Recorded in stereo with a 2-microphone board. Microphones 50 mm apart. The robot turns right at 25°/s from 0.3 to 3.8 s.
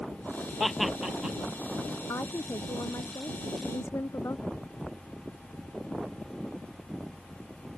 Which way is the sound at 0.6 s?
5° left (ahead or behind).